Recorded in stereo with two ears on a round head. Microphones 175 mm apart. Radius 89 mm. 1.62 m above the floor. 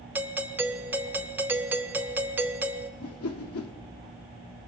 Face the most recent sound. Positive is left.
turn(degrees=85)